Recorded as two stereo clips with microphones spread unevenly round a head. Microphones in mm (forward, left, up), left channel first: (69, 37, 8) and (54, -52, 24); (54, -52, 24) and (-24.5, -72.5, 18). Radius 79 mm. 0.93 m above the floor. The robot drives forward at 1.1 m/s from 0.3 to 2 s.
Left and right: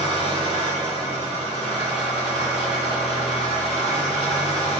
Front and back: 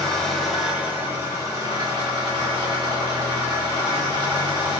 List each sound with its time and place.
0.0 s an engine running: 70° right, 1.7 m; by 4.8 s 130° right, 2 m